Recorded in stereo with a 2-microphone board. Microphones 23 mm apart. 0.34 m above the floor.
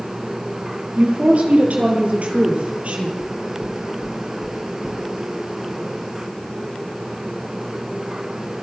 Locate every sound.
1.0 s a woman speaking: 70° right (ahead or behind), 7.5 m; by 3.1 s 65° right (ahead or behind), 9 m
3.2 s knocking: 25° right (ahead or behind), 2.5 m